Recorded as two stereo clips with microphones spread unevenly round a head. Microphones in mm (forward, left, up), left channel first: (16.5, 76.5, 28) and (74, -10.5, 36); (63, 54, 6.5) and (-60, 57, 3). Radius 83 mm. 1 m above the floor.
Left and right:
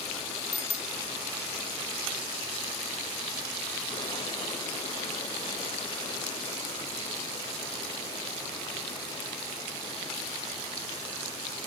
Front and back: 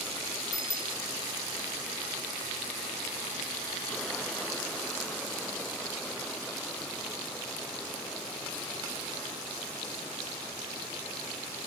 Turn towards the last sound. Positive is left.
turn(degrees=60)